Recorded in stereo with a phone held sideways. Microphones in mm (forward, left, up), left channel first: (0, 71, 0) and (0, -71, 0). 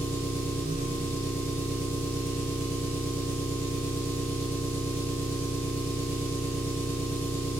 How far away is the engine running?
About 0.9 m.